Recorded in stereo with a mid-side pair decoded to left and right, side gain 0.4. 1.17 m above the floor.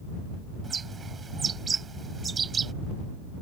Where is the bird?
45° right.